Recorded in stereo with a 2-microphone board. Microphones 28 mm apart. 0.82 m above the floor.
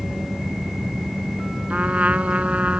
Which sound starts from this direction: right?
A trumpet, at 1.7 s.